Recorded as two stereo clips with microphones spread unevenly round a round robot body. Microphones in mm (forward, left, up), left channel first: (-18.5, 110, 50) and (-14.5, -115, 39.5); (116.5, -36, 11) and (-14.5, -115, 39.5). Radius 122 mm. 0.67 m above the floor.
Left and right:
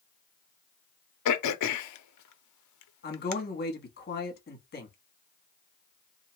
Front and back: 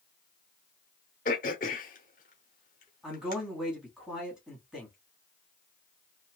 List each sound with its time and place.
1.2 s throat clearing: 85° left, 0.6 m
3.0 s a man speaking: 115° left, 1.2 m